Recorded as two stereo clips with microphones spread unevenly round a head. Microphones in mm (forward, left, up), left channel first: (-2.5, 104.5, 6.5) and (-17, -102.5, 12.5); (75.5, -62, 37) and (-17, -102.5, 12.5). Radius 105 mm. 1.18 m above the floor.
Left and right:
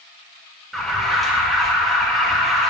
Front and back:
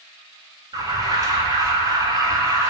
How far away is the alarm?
About 1.2 m.